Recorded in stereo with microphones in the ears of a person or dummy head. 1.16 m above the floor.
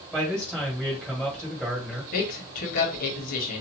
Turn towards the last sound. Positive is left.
turn(degrees=50)  # may be behind; listen again after turning